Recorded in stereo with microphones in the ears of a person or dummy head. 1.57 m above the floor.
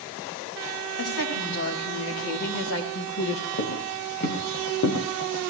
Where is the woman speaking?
85° left, 5 m.